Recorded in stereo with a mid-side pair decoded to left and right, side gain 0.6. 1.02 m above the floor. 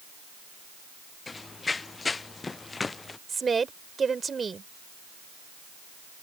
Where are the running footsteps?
20° left.